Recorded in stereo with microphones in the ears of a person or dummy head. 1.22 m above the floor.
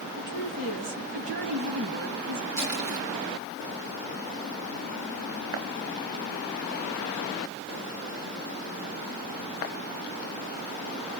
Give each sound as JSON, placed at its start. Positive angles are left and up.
{"t": 0.2, "sound": "a woman speaking", "side_deg": -65, "distance_m": 3.0}
{"t": 2.6, "sound": "crushing", "side_deg": -65, "distance_m": 2.5}